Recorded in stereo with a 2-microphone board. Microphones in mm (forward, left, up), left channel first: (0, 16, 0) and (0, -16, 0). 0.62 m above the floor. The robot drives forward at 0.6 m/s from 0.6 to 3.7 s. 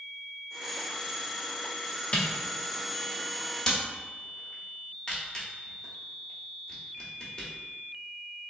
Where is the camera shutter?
35° left (ahead or behind), 0.9 m; by 7.5 s 20° left (ahead or behind), 1.4 m.